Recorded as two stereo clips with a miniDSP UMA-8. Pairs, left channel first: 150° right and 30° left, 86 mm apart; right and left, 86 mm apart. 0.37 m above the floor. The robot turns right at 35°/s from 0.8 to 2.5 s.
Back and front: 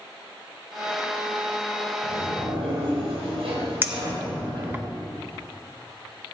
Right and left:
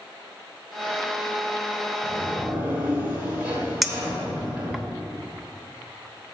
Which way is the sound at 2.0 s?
5° left.